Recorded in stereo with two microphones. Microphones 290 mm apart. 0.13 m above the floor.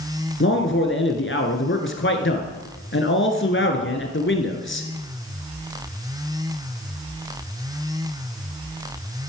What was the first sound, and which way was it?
A man speaking, 45° left (ahead or behind).